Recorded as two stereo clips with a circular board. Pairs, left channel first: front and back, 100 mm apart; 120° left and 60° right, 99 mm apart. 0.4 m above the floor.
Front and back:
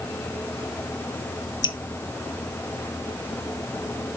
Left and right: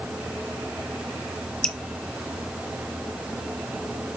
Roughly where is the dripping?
Ahead left.